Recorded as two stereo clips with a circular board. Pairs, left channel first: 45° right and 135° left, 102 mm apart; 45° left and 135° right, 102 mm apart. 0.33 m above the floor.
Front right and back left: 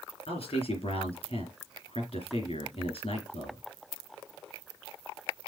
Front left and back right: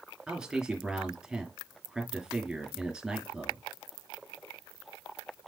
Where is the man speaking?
50° right, 4 m.